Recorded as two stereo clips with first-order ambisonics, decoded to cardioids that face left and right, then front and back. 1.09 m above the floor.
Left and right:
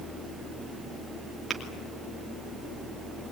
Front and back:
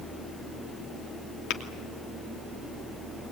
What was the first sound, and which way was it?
Tapping, 15° right.